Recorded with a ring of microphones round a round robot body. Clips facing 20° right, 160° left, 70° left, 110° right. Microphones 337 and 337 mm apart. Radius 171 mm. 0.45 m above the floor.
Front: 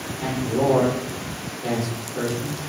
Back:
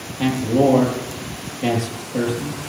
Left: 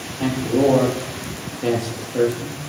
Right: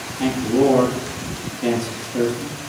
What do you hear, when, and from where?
0.2 s a man speaking: 175° left, 9.5 m